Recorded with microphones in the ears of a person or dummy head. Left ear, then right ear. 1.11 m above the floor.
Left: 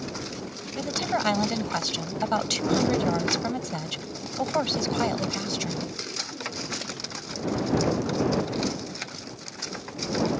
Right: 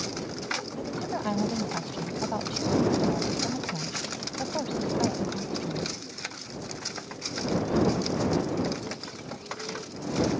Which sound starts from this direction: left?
A woman speaking, at 0.8 s.